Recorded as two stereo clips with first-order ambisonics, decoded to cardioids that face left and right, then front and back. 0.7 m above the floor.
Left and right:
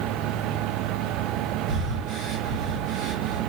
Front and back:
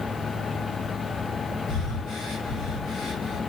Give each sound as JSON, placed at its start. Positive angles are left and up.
{"t": 1.7, "sound": "breathing", "azimuth_deg": -60, "distance_m": 2.0}